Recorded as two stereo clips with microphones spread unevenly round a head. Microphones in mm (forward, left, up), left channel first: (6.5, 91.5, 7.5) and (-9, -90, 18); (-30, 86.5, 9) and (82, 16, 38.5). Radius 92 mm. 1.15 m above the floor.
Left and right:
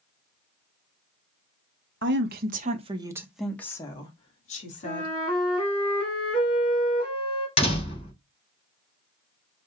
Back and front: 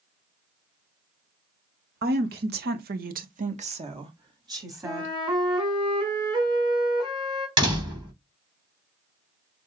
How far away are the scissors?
I don't hear scissors.